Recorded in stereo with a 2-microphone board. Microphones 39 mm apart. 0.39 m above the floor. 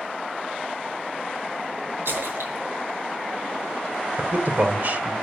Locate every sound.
2.0 s a splash: 75° right (ahead or behind), 4.5 m
4.2 s a man speaking: 50° right (ahead or behind), 1.2 m